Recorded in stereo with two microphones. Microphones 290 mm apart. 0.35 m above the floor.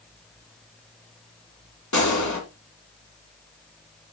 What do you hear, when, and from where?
1.9 s a gunshot: 75° left (ahead or behind), 2.5 m